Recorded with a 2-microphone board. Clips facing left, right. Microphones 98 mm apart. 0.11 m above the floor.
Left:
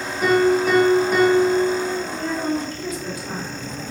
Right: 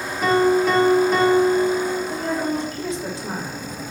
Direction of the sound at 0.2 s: 5° left (ahead or behind).